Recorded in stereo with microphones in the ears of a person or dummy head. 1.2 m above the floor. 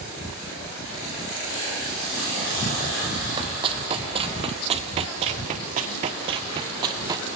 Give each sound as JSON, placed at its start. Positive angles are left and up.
{"t": 3.4, "sound": "running footsteps", "side_deg": -25, "distance_m": 2.0}